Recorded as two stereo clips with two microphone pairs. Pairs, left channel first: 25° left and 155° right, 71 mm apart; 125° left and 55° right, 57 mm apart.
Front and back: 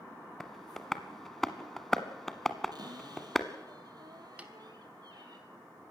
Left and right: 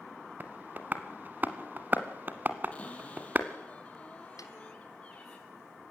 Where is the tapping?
55° right, 1.3 m.